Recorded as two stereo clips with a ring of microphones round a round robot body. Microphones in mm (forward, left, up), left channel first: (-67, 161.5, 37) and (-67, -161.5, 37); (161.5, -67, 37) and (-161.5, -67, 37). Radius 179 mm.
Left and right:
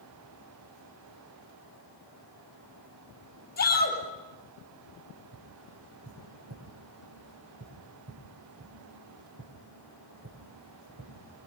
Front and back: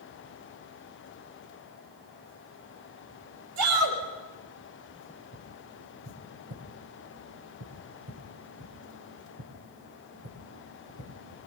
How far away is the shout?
About 9 m.